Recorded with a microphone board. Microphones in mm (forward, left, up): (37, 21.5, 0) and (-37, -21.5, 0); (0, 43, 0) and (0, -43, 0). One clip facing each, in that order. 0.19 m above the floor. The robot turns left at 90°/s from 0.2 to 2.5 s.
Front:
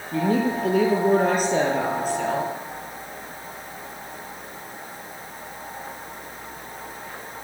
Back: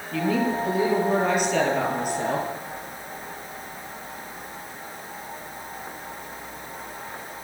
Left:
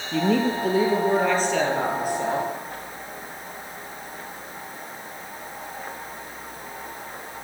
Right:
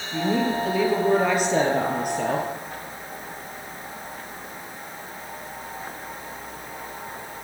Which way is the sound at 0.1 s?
95° left.